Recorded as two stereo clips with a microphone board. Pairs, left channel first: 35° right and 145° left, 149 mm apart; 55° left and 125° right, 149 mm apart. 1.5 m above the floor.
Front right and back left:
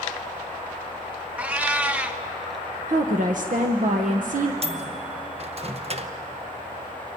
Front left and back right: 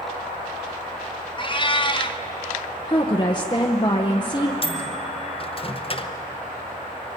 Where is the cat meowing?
70° left, 0.9 m.